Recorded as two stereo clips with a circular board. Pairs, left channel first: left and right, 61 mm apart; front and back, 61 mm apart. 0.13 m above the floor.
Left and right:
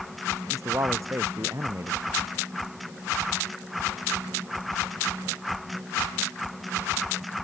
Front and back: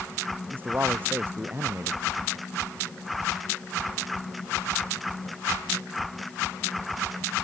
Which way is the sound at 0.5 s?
125° right.